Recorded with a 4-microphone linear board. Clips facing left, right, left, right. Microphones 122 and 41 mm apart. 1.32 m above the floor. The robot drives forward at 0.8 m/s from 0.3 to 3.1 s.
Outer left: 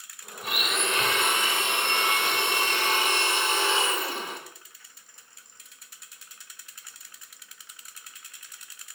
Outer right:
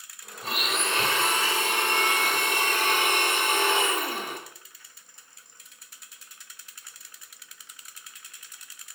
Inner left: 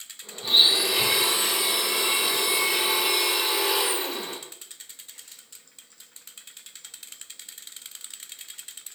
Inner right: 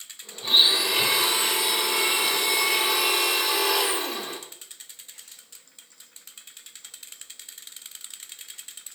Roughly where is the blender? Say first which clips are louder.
Even, even; right.